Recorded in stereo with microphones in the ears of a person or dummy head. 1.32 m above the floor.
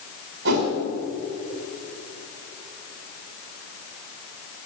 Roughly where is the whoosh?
Right.